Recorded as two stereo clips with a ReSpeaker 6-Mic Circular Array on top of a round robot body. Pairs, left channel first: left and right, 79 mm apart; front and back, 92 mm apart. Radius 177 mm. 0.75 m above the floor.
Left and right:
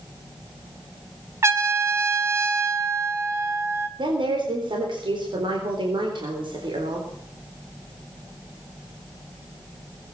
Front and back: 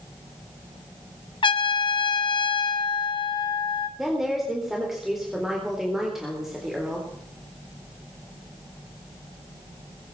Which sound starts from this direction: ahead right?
A trumpet, at 1.4 s.